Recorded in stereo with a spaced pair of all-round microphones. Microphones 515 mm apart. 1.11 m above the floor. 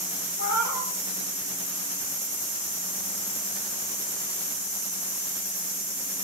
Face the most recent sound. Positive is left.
turn(degrees=35)  # may be behind; listen again after turning